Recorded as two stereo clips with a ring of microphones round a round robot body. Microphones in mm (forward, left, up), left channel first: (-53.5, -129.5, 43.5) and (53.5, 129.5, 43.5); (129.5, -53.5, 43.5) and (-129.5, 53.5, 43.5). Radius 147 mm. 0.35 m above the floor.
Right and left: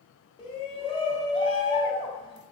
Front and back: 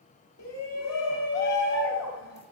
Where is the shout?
45° right, 2.5 m.